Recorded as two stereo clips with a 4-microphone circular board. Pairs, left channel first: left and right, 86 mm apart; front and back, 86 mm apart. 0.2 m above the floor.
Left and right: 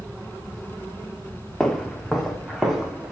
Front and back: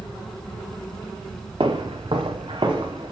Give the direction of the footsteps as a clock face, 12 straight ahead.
6 o'clock.